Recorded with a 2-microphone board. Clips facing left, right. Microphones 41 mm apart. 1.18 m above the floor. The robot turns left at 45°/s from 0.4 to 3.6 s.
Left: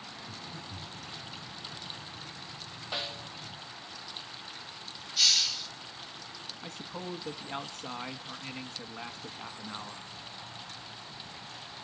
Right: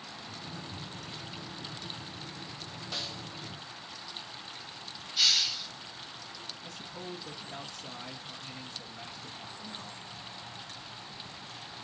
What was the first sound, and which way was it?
Breathing, 50° left (ahead or behind).